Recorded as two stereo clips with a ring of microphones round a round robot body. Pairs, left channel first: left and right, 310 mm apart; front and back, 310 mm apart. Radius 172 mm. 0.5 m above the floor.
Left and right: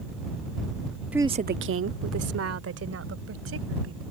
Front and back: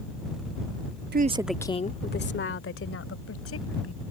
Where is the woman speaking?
175° right; by 4.0 s 45° right.